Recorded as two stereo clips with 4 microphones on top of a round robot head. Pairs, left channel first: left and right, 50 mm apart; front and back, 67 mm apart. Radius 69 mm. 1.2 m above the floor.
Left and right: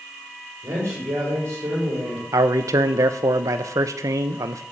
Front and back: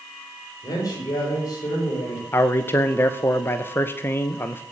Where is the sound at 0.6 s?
50° right, 5.5 m.